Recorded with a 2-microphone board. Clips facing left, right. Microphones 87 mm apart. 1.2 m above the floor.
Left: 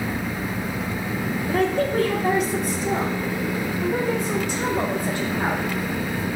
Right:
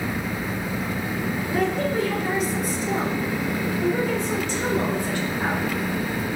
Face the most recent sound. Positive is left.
turn(degrees=50)  # may be behind; listen again after turning